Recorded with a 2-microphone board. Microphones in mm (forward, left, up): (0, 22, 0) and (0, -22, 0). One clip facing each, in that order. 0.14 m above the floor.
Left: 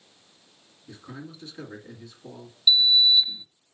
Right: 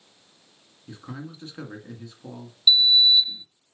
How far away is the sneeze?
No sneeze in this recording.